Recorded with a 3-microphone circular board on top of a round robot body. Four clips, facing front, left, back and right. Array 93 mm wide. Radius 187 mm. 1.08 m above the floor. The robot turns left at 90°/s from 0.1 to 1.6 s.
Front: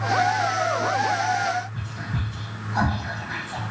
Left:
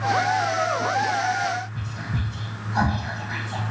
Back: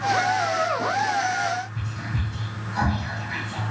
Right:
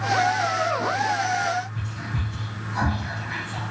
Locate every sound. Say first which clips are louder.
1.7 s whispering: left 1 dB, even; 55° left, 1.4 m